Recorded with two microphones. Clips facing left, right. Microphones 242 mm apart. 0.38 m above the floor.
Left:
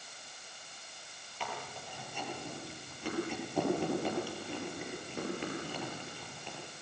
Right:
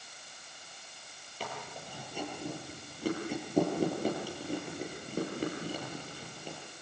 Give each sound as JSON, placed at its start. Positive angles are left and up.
{"t": 1.4, "sound": "chewing", "side_deg": -40, "distance_m": 9.5}